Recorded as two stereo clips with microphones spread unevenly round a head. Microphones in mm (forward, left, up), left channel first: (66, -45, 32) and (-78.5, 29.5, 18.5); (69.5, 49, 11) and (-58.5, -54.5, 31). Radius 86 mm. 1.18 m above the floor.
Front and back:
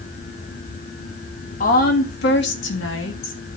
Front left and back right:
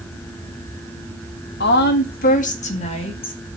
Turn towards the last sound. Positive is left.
turn(degrees=-20)